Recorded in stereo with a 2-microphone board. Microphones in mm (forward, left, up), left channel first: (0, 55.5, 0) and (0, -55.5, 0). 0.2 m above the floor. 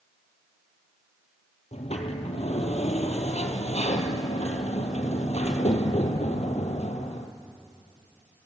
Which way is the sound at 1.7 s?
80° left.